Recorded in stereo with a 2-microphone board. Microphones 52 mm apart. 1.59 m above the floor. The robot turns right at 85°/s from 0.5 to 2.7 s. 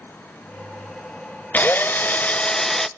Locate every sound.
1.5 s a drill: 70° left, 0.6 m; by 2.9 s 165° left, 0.6 m